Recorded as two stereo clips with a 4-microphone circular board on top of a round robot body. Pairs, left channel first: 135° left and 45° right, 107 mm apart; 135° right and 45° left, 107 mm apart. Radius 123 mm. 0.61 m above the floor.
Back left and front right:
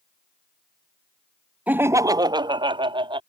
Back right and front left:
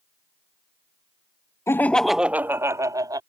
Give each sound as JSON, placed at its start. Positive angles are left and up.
{"t": 1.7, "sound": "laughter", "azimuth_deg": -105}